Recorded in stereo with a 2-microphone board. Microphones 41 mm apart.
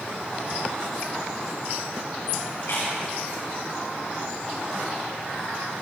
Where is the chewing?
80° left, 4.5 m.